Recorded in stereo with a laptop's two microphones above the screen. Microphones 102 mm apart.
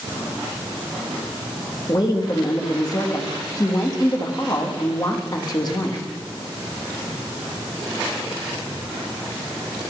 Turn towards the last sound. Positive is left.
turn(degrees=40)  # may be behind; listen again after turning